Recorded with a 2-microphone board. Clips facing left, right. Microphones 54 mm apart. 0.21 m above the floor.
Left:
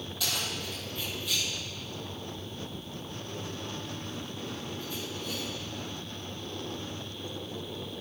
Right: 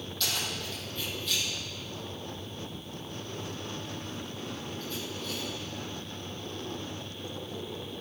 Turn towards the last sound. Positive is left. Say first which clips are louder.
# even
turn(degrees=10)  # may be behind; listen again after turning